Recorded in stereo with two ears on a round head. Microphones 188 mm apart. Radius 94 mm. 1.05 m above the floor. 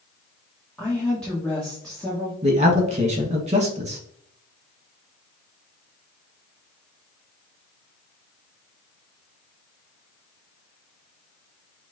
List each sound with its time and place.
0.8 s a woman speaking: 5° left (ahead or behind), 1.2 m
2.4 s a man speaking: 30° right (ahead or behind), 1.4 m